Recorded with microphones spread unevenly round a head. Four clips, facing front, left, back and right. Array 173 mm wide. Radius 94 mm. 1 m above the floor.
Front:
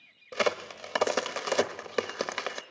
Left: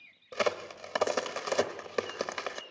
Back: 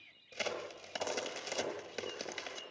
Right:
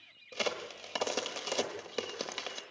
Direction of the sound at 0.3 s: 15° left.